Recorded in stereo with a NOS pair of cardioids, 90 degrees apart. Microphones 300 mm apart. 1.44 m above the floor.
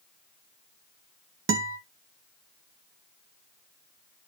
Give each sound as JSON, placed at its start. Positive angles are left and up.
{"t": 1.5, "sound": "a guitar", "azimuth_deg": -45, "distance_m": 2.0}